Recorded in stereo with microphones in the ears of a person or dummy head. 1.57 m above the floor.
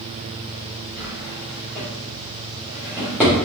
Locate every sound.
1.0 s a drawer: 10° right (ahead or behind), 3 m